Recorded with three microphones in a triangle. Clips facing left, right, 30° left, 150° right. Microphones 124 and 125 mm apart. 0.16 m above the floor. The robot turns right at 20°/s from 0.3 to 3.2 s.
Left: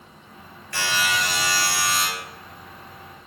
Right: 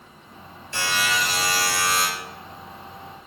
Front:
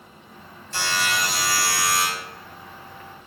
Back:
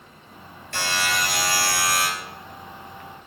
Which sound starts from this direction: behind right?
A buzzer, at 0.7 s.